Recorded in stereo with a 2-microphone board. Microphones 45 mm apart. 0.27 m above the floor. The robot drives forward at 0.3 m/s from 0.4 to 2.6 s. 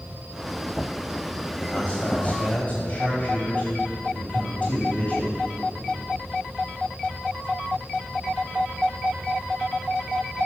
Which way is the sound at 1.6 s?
35° left (ahead or behind).